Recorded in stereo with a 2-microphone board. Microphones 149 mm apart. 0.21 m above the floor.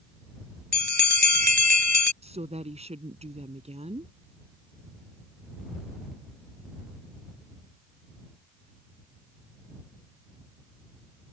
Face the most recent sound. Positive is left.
turn(degrees=-45)  # may be behind; listen again after turning